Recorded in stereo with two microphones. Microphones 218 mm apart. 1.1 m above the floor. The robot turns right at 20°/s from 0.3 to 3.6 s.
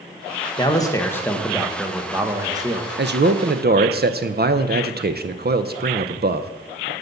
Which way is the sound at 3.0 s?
55° right (ahead or behind).